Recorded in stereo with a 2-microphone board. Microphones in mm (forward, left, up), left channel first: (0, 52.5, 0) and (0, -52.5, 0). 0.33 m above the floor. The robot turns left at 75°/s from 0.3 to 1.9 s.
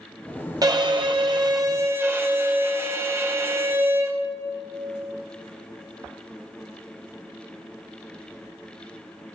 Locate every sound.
0.6 s a violin: 55° right, 1.4 m; by 4.2 s 150° right, 1.4 m